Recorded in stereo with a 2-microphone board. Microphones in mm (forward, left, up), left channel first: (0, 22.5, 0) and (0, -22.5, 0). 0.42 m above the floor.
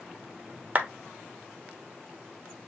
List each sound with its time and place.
0.8 s a clap: 30° right (ahead or behind), 0.9 m